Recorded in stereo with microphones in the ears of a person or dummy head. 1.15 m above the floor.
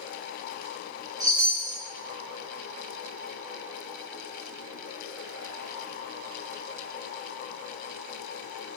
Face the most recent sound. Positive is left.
turn(degrees=-25)  # may be behind; listen again after turning